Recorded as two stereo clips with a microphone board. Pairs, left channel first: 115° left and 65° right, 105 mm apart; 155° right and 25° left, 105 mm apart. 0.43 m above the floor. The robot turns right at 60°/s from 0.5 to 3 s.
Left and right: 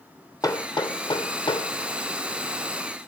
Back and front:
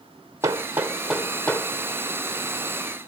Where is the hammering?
70° left, 1.3 m; by 1.7 s 140° left, 1.3 m.